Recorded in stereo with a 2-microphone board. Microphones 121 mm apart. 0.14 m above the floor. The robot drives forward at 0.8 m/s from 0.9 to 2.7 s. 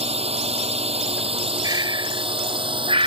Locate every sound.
0.0 s a drone: 55° right (ahead or behind); by 3.1 s 45° right (ahead or behind)
1.6 s breathing: 35° right (ahead or behind); by 3.1 s 50° right (ahead or behind)